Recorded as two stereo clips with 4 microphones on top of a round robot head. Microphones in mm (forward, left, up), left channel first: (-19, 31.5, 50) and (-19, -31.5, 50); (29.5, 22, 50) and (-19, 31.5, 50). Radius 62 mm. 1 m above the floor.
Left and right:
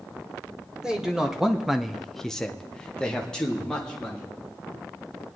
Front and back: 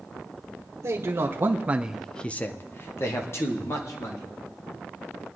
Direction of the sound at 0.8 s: 170° right.